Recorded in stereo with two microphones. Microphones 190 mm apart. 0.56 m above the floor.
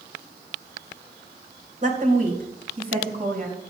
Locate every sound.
1.8 s a woman speaking: 45° right (ahead or behind), 3 m; by 3.6 s 55° right (ahead or behind), 5.5 m